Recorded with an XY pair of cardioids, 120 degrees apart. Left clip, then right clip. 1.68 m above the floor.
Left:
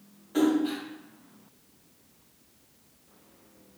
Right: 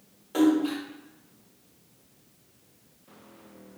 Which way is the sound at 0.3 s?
50° right.